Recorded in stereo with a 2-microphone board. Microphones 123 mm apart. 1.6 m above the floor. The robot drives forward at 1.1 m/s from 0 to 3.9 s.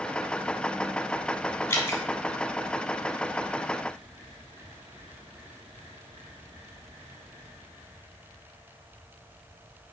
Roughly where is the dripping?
Left.